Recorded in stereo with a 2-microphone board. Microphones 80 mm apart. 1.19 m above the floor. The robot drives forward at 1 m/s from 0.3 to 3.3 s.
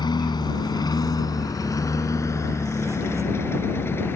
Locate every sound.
0.0 s a lawn mower: 75° left (ahead or behind); by 4.2 s 30° left (ahead or behind)